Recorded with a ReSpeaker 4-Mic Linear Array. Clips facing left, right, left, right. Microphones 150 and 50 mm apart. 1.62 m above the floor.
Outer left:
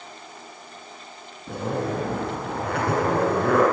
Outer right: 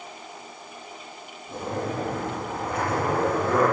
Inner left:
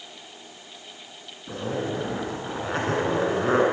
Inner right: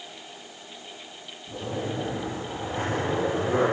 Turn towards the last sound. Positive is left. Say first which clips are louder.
# outer left 3 dB, inner left 3 dB
turn(degrees=65)  # may be behind; listen again after turning